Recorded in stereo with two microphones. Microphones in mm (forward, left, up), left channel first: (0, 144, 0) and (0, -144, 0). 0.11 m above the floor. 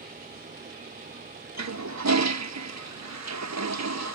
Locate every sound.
1.6 s a toilet flushing: 65° right (ahead or behind), 0.5 m